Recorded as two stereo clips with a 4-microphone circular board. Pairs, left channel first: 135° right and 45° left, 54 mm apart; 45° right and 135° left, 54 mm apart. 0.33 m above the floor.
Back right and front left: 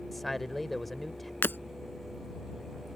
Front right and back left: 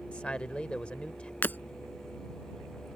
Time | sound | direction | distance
0.1 | a man speaking | 50° right | ?
1.4 | breaking glass | 90° right | ?